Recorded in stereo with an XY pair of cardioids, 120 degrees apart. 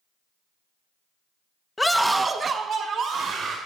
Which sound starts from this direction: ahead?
A scream, at 1.8 s.